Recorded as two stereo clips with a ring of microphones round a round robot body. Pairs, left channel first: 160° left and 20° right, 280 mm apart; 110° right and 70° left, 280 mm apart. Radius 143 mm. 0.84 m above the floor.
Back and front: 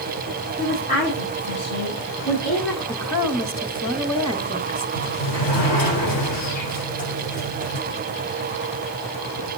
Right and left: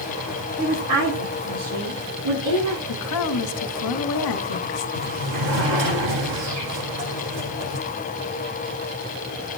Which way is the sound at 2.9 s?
120° right.